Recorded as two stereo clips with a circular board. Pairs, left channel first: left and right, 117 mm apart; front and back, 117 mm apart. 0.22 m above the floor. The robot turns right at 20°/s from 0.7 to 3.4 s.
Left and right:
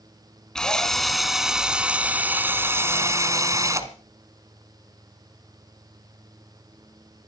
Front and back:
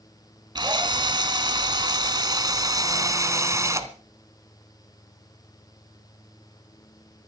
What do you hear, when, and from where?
0.6 s a drill: 170° left, 1.8 m; by 3.9 s 135° right, 1.8 m